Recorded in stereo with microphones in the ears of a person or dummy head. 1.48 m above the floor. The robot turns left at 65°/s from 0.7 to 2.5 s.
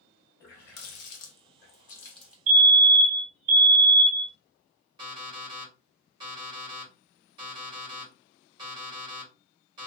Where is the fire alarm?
45° right (ahead or behind), 1.7 m.